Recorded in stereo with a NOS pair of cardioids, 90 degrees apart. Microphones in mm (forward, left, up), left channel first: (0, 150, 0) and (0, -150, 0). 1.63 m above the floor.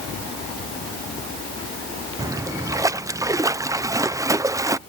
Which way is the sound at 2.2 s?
10° right.